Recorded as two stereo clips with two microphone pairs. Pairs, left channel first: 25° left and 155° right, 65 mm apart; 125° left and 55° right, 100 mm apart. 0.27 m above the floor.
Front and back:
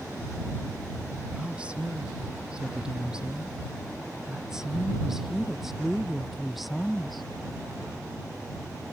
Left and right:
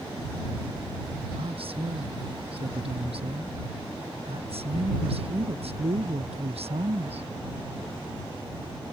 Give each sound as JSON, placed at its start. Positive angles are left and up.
{"t": 1.4, "sound": "a woman speaking", "azimuth_deg": -80}